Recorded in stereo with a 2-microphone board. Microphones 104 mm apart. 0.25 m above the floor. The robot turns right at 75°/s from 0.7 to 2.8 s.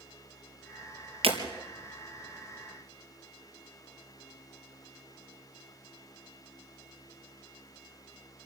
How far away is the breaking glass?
About 4 m.